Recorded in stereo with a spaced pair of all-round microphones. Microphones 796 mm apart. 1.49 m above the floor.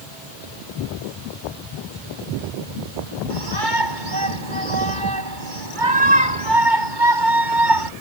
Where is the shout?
75° right (ahead or behind).